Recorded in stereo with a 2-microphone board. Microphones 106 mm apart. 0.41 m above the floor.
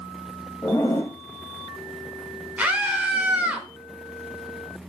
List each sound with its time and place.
0.6 s a zipper: 25° left (ahead or behind), 1.9 m
2.6 s a scream: 10° right (ahead or behind), 1.4 m